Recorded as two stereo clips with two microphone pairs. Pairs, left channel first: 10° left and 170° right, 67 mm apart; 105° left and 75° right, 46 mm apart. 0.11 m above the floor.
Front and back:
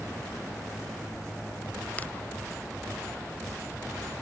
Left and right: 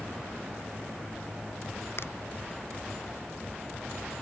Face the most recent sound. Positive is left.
turn(degrees=75)